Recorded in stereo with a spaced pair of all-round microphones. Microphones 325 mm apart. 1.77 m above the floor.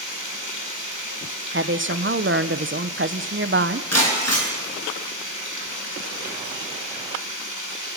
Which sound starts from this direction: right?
A woman speaking, at 1.5 s.